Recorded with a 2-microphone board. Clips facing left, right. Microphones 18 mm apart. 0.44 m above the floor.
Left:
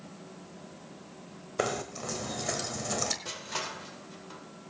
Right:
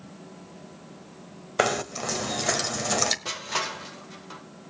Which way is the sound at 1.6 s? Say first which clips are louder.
Right 7 dB; 30° right (ahead or behind).